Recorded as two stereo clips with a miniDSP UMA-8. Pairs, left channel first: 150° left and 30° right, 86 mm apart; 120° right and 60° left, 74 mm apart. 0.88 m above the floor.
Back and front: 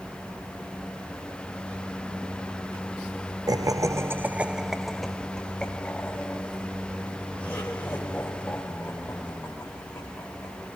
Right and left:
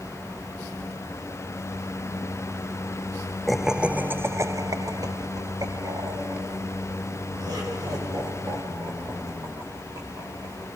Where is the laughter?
30° right, 0.6 m; by 10.8 s 90° left, 4 m.